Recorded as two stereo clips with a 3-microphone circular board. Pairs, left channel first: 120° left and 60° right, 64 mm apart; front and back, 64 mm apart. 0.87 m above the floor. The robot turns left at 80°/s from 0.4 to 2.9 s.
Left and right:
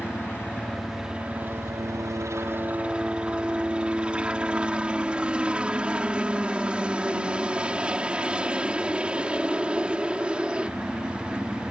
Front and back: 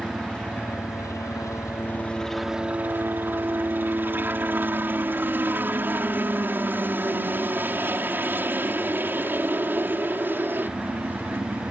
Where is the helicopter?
70° left; by 11.7 s 130° right.